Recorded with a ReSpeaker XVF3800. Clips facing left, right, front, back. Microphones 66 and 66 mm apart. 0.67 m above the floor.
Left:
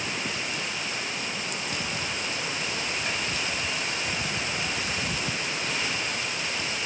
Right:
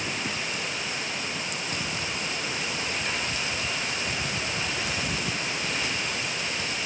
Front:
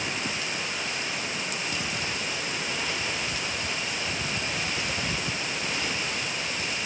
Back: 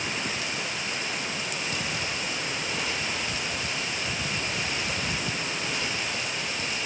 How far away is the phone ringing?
I don't hear a phone ringing.